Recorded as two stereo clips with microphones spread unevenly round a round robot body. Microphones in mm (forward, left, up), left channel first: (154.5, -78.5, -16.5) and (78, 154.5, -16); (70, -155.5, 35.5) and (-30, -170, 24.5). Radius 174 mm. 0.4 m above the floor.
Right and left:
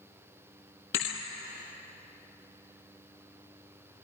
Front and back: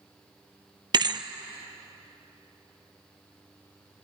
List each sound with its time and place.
0.9 s a thud: 125° right, 1.4 m